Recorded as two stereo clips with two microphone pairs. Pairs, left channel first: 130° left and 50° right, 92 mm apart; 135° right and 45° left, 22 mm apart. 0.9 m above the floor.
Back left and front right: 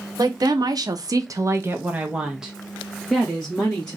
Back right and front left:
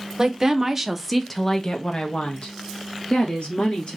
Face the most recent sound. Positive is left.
turn(degrees=-155)